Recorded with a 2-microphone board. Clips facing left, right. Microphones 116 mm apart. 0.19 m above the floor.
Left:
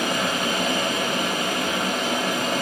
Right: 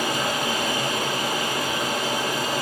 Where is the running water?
65° left (ahead or behind), 1.9 m.